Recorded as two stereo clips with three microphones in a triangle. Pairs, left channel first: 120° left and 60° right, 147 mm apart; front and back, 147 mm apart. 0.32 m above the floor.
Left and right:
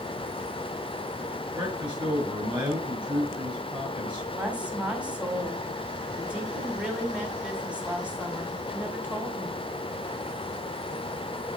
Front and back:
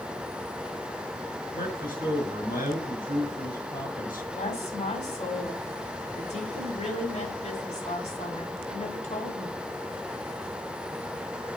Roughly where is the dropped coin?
I don't hear a dropped coin.